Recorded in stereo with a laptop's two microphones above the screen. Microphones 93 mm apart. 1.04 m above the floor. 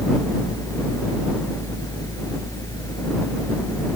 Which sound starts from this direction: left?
A fan, at 0.0 s.